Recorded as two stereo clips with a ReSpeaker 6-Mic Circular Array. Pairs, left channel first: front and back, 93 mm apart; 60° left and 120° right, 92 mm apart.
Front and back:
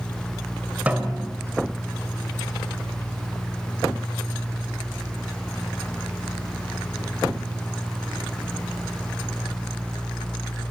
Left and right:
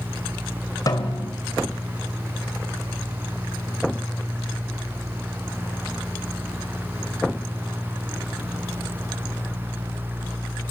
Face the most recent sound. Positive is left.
turn(degrees=105)